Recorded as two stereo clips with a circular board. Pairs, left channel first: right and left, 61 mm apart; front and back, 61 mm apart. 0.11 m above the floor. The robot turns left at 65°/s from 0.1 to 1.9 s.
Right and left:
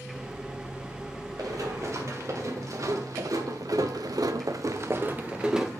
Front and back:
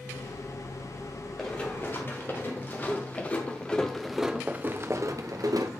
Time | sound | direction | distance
1.4 | running footsteps | 80° left | 2 m